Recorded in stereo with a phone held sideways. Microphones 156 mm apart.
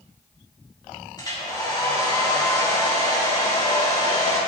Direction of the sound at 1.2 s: 25° left (ahead or behind).